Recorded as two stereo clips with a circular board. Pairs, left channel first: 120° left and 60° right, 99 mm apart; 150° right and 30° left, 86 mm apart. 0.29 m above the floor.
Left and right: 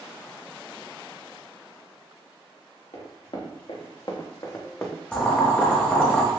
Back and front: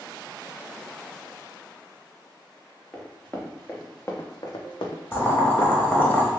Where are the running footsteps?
130° left, 1.4 m; by 6.1 s 130° right, 1.1 m.